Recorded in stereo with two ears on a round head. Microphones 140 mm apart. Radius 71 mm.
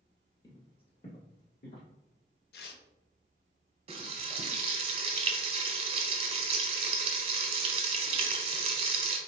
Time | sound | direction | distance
0.4 | footsteps | 25° left (ahead or behind) | 1.5 m
2.5 | tearing paper | 75° left (ahead or behind) | 0.7 m
3.9 | frying | 40° right (ahead or behind) | 1.2 m